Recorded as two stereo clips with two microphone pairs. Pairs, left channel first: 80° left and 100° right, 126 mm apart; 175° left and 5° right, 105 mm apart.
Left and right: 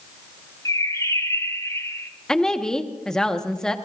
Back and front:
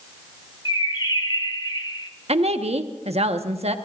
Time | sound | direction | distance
0.7 | a bird | 140° left | 1.2 m
2.3 | a woman speaking | 5° right | 1.3 m